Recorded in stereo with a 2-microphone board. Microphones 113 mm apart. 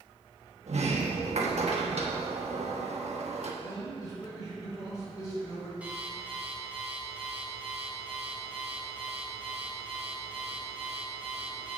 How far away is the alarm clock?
About 3 m.